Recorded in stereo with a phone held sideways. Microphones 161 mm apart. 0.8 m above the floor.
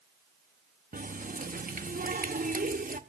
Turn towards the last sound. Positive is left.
turn(degrees=-65)  # may be behind; listen again after turning